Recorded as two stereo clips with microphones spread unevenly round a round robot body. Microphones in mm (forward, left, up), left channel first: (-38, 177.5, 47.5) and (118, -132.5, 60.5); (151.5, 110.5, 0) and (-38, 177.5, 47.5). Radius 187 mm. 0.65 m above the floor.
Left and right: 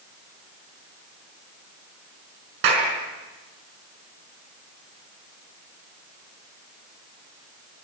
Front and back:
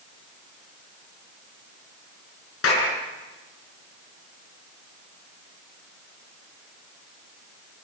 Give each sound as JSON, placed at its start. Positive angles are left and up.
{"t": 2.6, "sound": "a clap", "azimuth_deg": -35, "distance_m": 6.0}